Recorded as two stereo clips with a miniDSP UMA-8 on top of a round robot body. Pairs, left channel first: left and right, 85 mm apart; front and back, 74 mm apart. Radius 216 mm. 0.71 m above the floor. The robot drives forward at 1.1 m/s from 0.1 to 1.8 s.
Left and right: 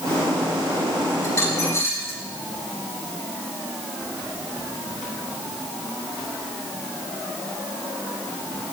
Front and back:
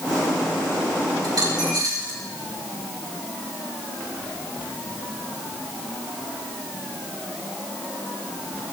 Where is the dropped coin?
145° left, 4.5 m; by 2.2 s 150° left, 5 m.